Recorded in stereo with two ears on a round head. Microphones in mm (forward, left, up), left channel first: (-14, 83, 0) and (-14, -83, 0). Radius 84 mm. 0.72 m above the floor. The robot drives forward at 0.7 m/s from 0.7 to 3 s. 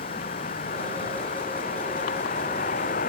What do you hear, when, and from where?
0.0 s a vehicle: 40° left (ahead or behind)